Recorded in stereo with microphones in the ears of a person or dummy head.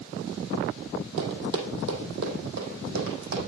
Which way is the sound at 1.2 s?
60° right (ahead or behind).